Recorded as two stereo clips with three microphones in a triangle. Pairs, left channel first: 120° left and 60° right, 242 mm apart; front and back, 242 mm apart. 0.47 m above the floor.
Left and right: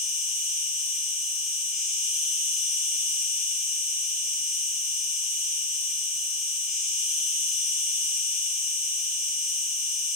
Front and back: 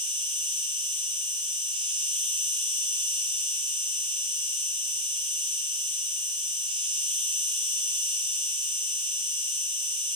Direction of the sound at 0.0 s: 110° right.